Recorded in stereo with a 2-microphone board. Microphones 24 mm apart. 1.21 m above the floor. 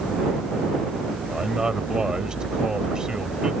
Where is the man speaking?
25° right (ahead or behind).